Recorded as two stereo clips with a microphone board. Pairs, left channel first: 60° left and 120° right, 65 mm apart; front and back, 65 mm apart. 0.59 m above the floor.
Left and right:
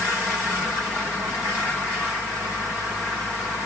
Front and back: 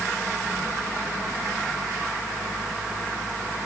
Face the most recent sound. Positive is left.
No sound to turn to.